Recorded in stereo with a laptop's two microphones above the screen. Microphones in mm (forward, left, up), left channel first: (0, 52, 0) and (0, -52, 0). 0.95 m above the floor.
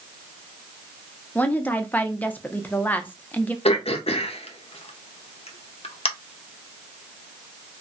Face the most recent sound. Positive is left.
turn(degrees=75)  # may be behind; listen again after turning